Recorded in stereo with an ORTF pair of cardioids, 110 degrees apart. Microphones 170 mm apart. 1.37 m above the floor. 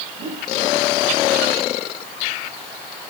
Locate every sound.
0.2 s a whoosh: 65° right, 4.5 m